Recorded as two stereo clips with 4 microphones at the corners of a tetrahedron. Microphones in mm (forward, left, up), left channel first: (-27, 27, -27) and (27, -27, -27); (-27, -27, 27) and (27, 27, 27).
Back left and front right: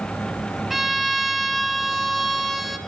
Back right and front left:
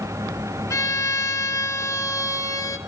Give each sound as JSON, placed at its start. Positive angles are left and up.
{"t": 0.7, "sound": "a violin", "azimuth_deg": -135, "distance_m": 0.8}